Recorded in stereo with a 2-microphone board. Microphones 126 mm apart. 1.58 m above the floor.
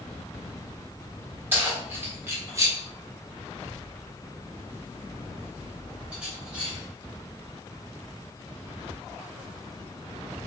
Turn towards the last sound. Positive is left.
turn(degrees=-5)  # may be behind; listen again after turning